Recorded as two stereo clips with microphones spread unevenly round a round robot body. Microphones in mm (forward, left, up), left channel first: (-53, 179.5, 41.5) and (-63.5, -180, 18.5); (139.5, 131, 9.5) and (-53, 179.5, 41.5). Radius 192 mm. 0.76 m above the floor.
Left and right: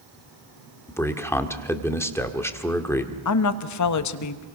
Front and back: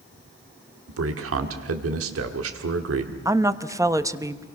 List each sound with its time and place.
0.9 s a man speaking: 175° left, 1.7 m
3.2 s a woman speaking: 85° left, 1.2 m